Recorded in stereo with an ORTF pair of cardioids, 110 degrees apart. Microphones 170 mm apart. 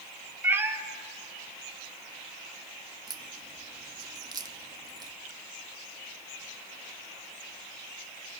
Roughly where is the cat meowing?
Ahead.